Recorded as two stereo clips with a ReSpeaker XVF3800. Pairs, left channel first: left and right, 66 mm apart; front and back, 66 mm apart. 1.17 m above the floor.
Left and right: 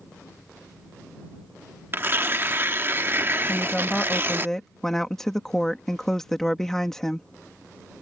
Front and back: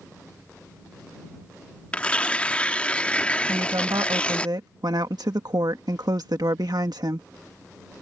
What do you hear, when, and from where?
1.9 s tearing paper: 60° right
3.5 s a woman speaking: 175° left